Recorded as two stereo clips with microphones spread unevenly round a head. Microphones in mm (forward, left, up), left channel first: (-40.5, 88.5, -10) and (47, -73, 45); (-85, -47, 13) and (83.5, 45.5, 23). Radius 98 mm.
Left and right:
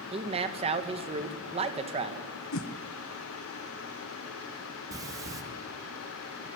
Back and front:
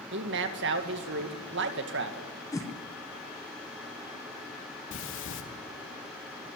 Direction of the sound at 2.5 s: 135° left.